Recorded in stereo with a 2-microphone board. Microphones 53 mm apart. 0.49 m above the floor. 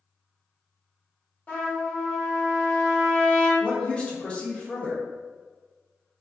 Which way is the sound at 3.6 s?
20° left (ahead or behind).